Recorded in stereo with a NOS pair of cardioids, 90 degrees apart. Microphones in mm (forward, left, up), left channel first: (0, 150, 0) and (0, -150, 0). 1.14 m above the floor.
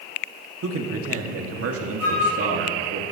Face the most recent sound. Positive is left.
turn(degrees=60)